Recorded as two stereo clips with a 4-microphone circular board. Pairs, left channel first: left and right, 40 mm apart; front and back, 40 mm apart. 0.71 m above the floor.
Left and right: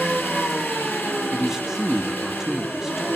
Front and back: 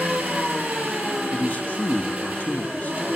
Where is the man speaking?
15° right, 0.9 m.